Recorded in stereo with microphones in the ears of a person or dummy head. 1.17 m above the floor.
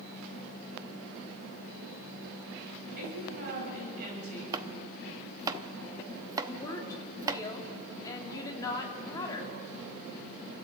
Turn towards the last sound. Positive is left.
turn(degrees=10)  # may be behind; listen again after turning